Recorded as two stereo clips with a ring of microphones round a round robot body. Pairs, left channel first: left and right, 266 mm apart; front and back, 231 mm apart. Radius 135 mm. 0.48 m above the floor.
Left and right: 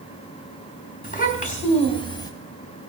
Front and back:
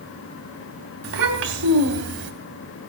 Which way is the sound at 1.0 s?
150° left.